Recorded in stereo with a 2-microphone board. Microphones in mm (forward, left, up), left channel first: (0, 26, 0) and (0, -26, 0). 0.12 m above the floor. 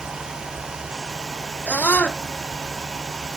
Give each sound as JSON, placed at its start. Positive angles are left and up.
{"t": 1.7, "sound": "a scream", "side_deg": 30}